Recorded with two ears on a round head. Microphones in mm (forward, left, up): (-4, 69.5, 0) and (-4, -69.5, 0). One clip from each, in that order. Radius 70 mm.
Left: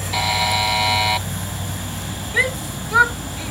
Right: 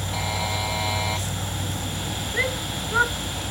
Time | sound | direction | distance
0.1 | a buzzer | 60° left (ahead or behind) | ?
2.3 | a shout | 75° left (ahead or behind) | ?